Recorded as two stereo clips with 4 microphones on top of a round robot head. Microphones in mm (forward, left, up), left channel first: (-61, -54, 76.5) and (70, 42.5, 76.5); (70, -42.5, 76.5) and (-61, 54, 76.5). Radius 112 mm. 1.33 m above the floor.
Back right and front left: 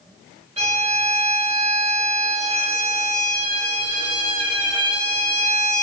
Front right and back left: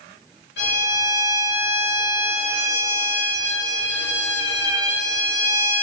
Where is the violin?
20° right, 1.3 m.